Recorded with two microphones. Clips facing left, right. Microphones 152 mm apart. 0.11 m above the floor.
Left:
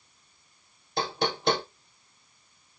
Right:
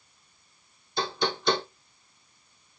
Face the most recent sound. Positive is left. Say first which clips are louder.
# even
turn(degrees=55)  # may be behind; listen again after turning